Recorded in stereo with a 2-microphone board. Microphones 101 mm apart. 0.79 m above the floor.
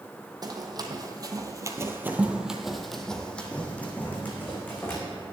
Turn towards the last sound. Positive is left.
turn(degrees=20)  # may be behind; listen again after turning